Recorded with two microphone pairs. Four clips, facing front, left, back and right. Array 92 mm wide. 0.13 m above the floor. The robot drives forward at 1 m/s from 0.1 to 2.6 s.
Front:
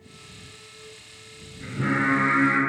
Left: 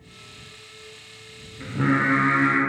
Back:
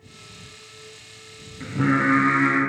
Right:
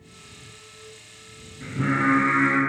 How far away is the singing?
About 5.5 m.